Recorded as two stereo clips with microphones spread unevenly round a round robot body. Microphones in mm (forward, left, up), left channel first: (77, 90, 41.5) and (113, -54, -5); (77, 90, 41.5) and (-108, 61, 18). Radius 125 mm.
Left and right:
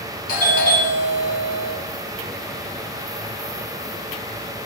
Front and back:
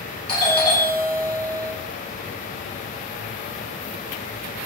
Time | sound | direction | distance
0.3 | a doorbell | 70° left | 4 m